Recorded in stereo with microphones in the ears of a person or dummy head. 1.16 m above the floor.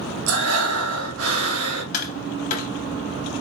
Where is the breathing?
70° right (ahead or behind), 1.6 m.